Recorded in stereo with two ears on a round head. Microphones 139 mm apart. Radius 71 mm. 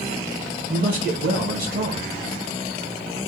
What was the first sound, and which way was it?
A man speaking, 60° right (ahead or behind).